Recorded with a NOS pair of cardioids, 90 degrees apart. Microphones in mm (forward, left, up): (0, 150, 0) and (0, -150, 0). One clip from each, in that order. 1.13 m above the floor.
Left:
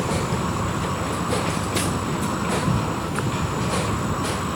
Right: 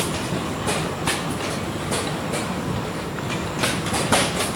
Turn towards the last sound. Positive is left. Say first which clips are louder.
# left 1 dB
turn(degrees=40)